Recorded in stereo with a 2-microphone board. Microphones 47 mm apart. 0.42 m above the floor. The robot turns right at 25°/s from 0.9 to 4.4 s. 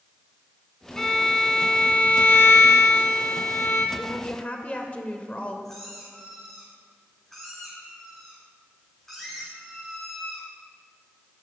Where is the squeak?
5° left (ahead or behind), 4.5 m.